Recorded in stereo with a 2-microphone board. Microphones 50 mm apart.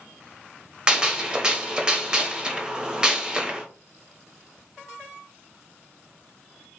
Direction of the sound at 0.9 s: 15° right (ahead or behind).